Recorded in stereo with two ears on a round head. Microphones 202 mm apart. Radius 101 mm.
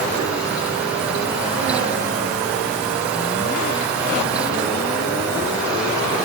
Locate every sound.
Only background noise.